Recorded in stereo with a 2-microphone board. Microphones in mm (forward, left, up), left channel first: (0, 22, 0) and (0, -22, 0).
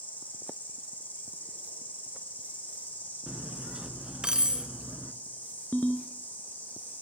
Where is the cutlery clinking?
20° right (ahead or behind), 0.7 m.